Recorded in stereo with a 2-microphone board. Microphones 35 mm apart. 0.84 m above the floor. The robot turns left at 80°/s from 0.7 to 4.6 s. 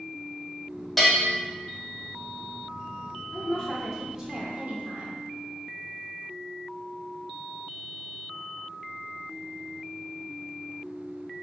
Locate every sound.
1.0 s a bell: 5° left (ahead or behind), 1.3 m; by 1.2 s 10° right (ahead or behind), 1.3 m
3.3 s a woman speaking: 50° left, 1.2 m; by 5.2 s 55° right, 1.2 m